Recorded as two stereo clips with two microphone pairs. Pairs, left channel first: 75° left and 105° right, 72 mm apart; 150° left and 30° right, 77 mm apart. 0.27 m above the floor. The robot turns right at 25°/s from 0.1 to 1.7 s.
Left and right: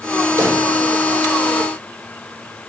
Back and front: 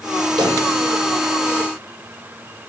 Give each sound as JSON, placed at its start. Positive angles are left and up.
{"t": 0.4, "sound": "a pop", "azimuth_deg": -50, "distance_m": 8.5}